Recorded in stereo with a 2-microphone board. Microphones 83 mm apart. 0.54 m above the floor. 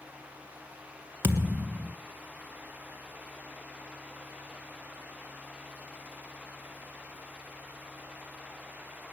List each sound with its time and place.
1.2 s a thud: 25° right (ahead or behind), 1.4 m